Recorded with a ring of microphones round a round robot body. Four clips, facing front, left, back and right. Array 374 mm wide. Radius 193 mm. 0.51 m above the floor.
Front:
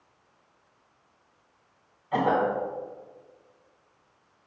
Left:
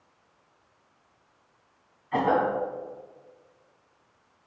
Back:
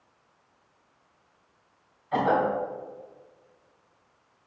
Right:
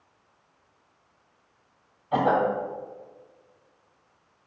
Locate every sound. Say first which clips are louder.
2.1 s a cough: right 1 dB, even; 95° right, 3 m